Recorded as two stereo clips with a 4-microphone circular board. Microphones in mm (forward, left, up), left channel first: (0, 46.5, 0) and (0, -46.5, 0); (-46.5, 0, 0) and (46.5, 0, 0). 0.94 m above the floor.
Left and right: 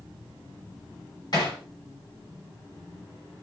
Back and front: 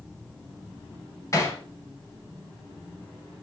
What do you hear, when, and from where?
1.3 s hammering: 125° left, 4 m